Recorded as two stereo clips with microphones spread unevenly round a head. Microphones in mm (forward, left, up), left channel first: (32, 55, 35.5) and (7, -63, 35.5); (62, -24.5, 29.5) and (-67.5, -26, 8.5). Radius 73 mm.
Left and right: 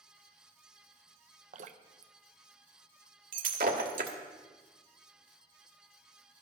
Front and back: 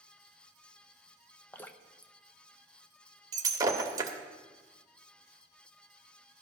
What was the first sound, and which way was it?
Dripping, 75° right.